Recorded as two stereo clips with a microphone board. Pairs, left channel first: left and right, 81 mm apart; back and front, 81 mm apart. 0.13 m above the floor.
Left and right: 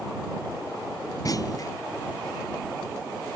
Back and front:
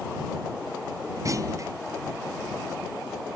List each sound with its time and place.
1.2 s a clunk: 45° left